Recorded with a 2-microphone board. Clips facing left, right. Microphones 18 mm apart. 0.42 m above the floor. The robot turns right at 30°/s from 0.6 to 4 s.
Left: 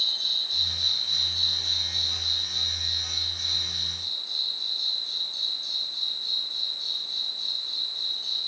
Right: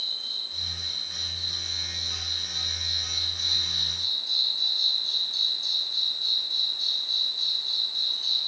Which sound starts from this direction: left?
An insect, at 0.0 s.